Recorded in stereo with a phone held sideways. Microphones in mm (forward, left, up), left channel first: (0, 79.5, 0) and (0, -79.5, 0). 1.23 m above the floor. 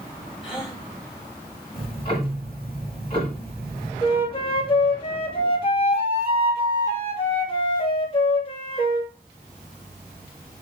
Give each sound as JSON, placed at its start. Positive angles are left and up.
{"t": 0.4, "sound": "a gasp", "side_deg": -5, "distance_m": 6.5}
{"t": 1.7, "sound": "ticking", "side_deg": 30, "distance_m": 5.0}
{"t": 4.0, "sound": "a flute", "side_deg": 35, "distance_m": 2.5}